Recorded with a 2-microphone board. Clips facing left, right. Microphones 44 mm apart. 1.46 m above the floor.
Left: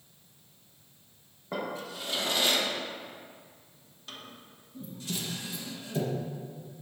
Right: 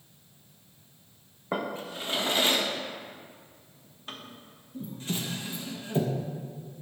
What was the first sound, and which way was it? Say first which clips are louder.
A drawer: right 3 dB; 30° right (ahead or behind).